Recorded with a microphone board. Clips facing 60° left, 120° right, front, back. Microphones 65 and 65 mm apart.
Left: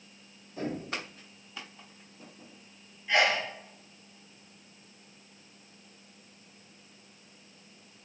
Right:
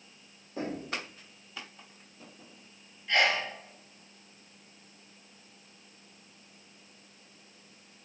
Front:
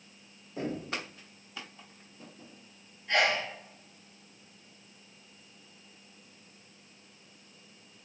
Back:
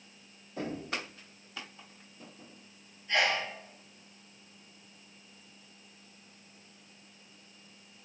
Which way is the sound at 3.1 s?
20° right.